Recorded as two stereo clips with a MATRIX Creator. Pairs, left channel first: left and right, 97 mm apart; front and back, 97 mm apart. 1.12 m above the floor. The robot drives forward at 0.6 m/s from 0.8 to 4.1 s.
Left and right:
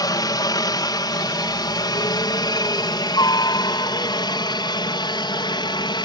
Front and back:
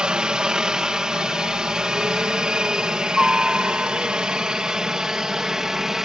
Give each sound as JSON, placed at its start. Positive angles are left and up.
{"t": 0.0, "sound": "a helicopter", "azimuth_deg": 105}